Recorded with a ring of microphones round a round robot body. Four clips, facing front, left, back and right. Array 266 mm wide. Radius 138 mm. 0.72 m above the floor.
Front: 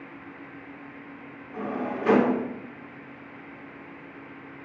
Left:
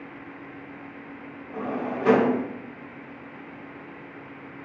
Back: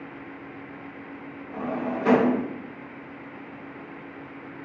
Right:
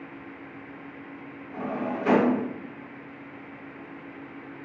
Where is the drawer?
135° left, 1.3 m.